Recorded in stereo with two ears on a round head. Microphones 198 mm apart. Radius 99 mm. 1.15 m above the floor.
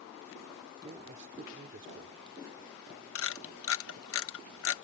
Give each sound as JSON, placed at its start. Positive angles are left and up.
{"t": 0.8, "sound": "a man speaking", "side_deg": -35}
{"t": 3.1, "sound": "a camera shutter", "side_deg": 65}